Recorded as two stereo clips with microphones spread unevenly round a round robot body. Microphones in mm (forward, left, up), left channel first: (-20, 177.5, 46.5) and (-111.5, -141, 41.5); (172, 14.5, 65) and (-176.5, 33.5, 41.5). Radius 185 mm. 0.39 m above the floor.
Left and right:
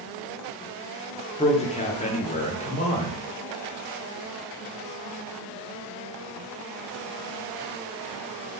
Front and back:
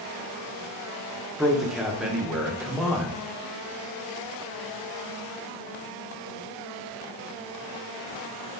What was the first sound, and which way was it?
A man speaking, 100° left.